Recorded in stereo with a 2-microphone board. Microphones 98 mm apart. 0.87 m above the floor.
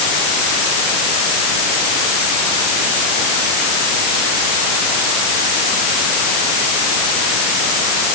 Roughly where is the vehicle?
I don't hear a vehicle.